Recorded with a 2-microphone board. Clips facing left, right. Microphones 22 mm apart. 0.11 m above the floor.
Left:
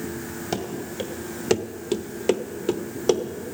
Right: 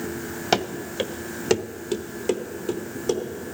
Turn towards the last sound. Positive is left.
turn(degrees=40)  # may be behind; listen again after turning